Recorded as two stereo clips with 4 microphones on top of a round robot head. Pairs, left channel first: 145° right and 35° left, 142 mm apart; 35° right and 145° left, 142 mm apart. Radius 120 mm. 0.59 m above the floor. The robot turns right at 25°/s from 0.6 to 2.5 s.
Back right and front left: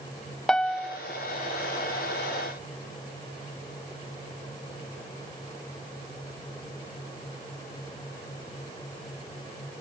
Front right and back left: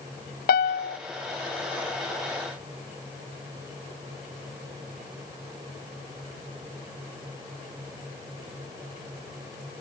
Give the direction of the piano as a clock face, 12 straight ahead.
2 o'clock.